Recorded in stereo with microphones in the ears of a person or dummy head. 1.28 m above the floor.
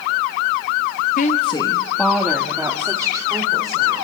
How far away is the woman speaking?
About 1.3 m.